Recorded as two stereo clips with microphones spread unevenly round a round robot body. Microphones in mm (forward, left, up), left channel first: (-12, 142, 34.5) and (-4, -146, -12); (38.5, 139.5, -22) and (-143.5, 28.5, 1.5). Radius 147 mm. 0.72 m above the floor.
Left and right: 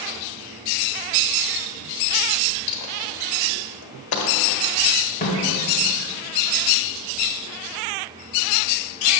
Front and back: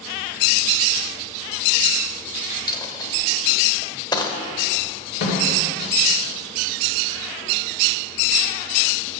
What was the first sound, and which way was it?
A dropped coin, 105° left.